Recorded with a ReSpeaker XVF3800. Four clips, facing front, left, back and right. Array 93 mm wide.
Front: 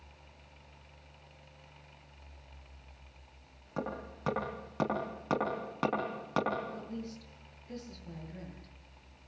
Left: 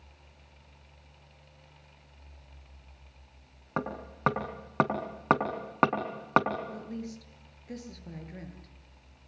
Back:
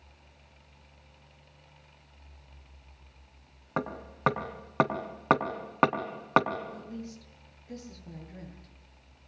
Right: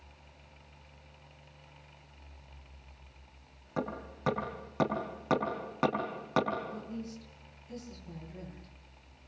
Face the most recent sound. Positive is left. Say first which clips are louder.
# left 2 dB, even
turn(degrees=95)